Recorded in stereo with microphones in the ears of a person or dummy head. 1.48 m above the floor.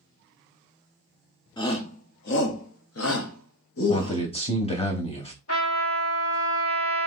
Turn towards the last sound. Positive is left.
turn(degrees=75)  # may be behind; listen again after turning